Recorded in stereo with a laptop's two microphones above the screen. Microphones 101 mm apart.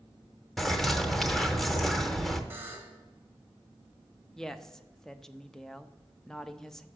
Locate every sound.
0.6 s a bird: centre (ahead or behind), 0.6 m
2.5 s a buzzer: 20° right (ahead or behind), 1.3 m
4.4 s a woman speaking: 5° left (ahead or behind), 0.6 m